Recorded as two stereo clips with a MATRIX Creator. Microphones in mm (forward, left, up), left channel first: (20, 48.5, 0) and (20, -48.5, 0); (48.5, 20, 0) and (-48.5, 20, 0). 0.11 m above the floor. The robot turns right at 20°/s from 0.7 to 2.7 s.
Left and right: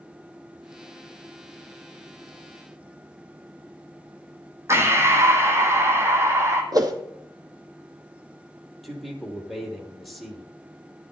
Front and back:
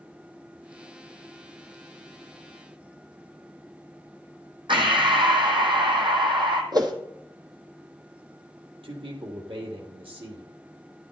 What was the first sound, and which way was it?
Breathing, 150° right.